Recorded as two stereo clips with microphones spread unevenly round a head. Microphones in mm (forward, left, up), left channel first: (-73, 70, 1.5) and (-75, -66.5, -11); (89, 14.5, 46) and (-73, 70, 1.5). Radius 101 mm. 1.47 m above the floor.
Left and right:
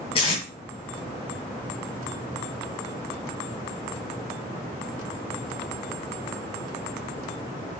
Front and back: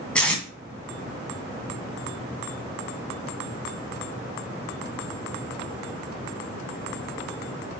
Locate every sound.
0.1 s tape being pulled: 50° left, 2 m